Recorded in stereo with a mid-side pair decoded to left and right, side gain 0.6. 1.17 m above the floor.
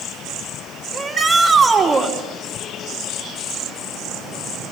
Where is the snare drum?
I don't hear a snare drum.